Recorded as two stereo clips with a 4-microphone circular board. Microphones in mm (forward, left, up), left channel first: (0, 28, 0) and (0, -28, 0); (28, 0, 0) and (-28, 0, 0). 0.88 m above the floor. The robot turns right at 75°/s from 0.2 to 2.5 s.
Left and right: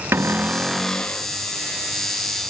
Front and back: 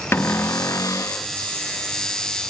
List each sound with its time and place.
0.1 s a cupboard door: 45° right, 0.6 m; by 1.3 s 40° left, 0.6 m